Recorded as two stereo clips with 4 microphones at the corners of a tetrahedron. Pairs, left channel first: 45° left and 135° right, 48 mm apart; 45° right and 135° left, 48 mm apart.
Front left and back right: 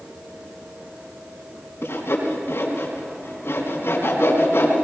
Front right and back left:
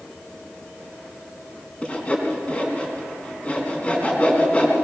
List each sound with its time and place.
1.8 s sawing: 20° left, 3.5 m